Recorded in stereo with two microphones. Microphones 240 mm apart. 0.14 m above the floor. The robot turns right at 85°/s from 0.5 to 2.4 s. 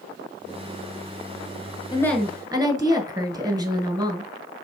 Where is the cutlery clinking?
I don't hear cutlery clinking.